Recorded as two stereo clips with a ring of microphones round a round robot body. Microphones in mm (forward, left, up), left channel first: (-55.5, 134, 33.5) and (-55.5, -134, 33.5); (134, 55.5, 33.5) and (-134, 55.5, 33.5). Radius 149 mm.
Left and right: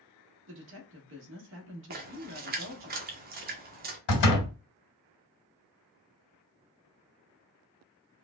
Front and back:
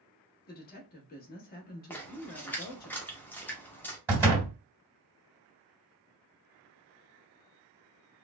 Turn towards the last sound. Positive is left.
turn(degrees=100)